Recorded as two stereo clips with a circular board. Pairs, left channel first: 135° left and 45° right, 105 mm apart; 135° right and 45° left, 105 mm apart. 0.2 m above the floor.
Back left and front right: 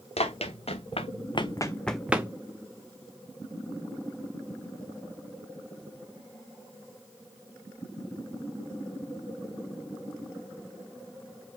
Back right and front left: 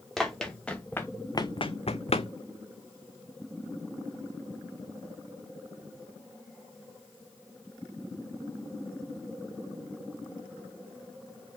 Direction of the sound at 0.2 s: 135° left.